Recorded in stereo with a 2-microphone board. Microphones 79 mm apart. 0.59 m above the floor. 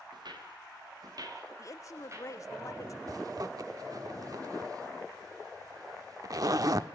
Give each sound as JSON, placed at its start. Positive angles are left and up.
{"t": 0.1, "sound": "footsteps", "side_deg": -70, "distance_m": 4.5}
{"t": 1.6, "sound": "a woman speaking", "side_deg": 45, "distance_m": 1.0}
{"t": 3.1, "sound": "a zipper", "side_deg": -50, "distance_m": 0.9}